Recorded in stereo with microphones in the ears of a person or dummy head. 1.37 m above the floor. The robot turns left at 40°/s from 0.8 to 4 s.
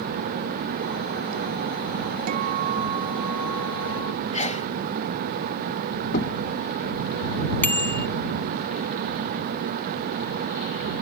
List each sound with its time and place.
2.3 s a guitar: 135° right; by 4.2 s 155° left
4.3 s a sneeze: 40° left (ahead or behind)
6.1 s knocking: 45° left (ahead or behind)
7.6 s a bicycle bell: 15° left (ahead or behind)